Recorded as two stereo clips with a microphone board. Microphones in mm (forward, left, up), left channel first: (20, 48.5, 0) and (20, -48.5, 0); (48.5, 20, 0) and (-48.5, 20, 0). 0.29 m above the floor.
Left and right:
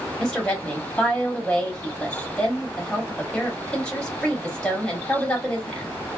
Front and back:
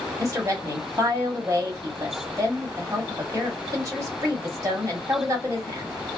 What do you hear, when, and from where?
0.2 s a woman speaking: 165° left, 1.8 m